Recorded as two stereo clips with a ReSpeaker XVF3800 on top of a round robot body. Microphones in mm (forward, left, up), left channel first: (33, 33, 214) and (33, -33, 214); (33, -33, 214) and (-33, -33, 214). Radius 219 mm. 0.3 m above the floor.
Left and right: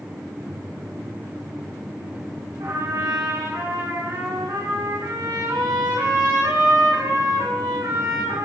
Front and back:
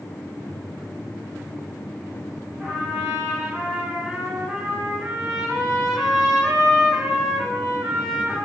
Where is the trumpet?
100° right, 5.5 m.